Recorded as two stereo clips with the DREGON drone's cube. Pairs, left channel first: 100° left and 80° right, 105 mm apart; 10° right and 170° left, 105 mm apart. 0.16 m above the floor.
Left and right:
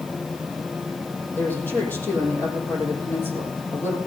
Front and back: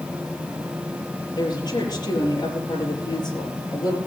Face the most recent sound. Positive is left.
turn(degrees=30)